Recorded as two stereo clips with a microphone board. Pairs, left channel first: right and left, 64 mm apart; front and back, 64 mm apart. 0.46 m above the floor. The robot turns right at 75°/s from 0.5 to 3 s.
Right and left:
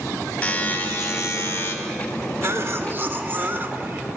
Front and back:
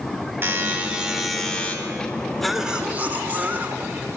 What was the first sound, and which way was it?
A buzzer, 150° right.